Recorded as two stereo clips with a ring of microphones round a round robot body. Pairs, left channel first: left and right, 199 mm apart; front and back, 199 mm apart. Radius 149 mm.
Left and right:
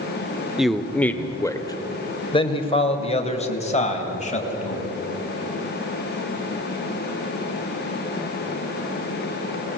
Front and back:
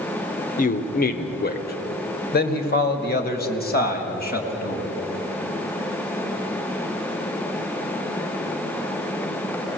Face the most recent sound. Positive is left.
turn(degrees=40)